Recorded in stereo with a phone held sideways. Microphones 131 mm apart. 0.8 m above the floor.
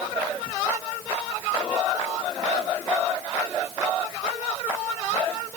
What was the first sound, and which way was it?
Only background noise.